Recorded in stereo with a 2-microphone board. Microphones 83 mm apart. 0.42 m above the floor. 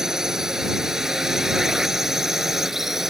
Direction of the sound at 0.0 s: 5° right (ahead or behind).